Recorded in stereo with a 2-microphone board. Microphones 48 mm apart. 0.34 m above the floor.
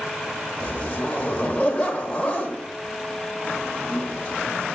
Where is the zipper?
30° left (ahead or behind), 1.0 m.